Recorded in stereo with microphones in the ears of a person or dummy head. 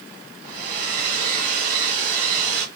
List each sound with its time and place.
0.4 s a hair dryer: 45° right (ahead or behind), 2.5 m